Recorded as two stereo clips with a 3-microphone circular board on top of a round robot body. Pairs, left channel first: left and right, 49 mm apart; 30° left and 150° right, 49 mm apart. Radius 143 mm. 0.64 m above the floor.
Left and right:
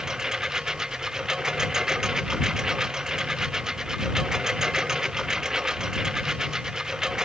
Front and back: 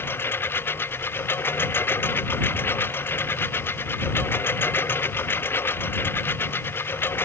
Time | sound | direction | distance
0.0 | a lawn mower | 10° right | ?